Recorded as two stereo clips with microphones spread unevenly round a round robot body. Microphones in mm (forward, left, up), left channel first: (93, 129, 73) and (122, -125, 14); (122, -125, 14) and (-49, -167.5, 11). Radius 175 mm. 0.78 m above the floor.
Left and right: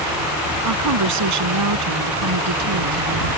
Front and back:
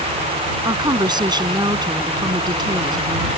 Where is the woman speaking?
100° right.